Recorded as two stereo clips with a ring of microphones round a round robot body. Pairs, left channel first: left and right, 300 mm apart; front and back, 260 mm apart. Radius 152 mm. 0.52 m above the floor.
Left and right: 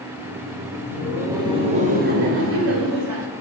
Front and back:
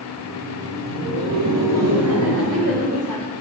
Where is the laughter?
175° left, 3 m; by 3.3 s 110° right, 1.8 m.